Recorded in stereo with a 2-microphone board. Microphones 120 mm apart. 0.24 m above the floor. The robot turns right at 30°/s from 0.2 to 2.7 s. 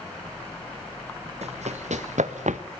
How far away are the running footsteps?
About 3 m.